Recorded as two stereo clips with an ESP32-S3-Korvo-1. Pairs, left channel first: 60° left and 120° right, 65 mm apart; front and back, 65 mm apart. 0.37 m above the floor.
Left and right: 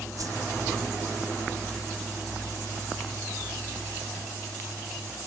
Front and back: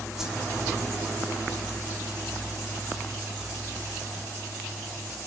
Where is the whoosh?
100° right, 1.9 m.